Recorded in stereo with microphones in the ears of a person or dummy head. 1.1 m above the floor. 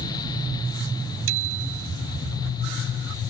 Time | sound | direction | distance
1.3 | a bicycle bell | 75° right (ahead or behind) | ?